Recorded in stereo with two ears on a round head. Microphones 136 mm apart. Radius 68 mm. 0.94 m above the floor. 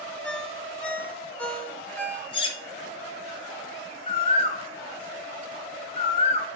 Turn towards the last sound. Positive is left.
turn(degrees=40)  # may be behind; listen again after turning